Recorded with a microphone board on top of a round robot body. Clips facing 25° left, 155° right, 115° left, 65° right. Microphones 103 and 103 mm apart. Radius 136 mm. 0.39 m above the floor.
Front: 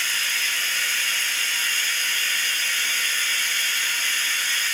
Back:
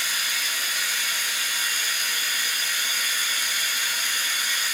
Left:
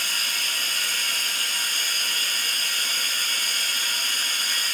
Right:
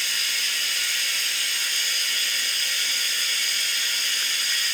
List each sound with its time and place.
0.0 s running water: 130° left, 0.8 m